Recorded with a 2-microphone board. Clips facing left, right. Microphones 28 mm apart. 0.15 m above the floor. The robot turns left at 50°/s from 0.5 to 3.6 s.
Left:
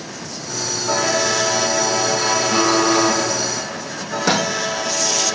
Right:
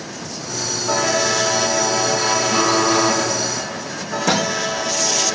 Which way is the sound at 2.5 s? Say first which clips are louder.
Left 1 dB; 30° left (ahead or behind).